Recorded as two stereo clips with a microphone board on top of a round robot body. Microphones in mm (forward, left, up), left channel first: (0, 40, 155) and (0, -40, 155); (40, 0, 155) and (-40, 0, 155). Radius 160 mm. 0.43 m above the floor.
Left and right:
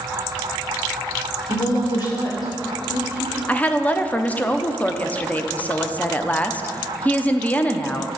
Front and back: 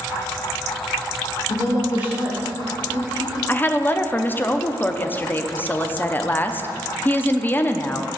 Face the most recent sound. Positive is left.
turn(degrees=40)